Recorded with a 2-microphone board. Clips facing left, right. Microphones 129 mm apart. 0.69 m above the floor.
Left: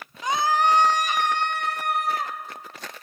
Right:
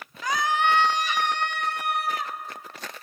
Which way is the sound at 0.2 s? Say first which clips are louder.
Left 2 dB; 20° left (ahead or behind).